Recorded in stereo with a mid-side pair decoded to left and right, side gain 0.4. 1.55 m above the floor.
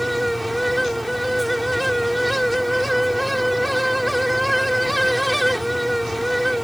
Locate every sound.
0.0 s a fan: straight ahead